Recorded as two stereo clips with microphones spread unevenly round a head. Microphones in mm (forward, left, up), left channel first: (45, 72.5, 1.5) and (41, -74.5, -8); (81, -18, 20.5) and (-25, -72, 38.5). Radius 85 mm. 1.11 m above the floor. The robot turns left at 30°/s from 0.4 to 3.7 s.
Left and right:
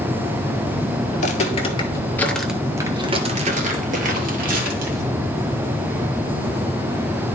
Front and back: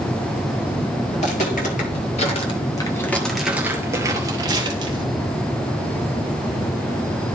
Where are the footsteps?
80° left, 1.8 m; by 5.1 s 120° right, 2 m.